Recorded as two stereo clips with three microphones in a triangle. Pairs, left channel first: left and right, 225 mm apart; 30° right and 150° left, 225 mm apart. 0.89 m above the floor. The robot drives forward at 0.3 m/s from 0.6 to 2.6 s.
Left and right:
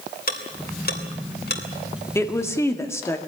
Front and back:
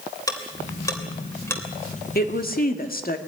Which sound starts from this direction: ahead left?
Ticking, at 0.3 s.